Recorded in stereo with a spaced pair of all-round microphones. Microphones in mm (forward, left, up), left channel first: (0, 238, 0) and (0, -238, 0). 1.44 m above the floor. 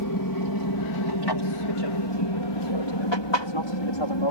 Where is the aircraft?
40° left (ahead or behind); by 4.3 s 65° left (ahead or behind).